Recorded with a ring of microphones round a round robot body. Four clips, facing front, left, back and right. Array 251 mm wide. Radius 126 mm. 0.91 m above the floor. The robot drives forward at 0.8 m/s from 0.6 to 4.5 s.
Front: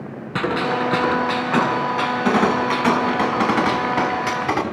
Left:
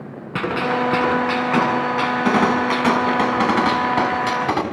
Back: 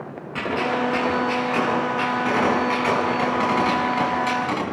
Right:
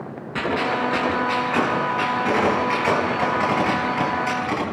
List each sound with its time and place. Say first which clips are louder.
0.3 s a gunshot: left 2 dB, front 2 dB; 50° left, 7.5 m; by 4.6 s 70° left, 6 m